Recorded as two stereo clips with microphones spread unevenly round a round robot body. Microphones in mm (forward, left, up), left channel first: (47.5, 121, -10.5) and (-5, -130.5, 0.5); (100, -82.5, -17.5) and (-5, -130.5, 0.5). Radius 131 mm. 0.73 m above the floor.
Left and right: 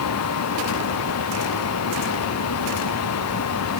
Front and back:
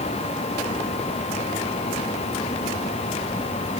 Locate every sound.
Only background noise.